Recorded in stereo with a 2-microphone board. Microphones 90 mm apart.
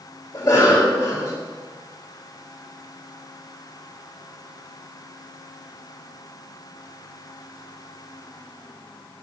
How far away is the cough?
About 2 m.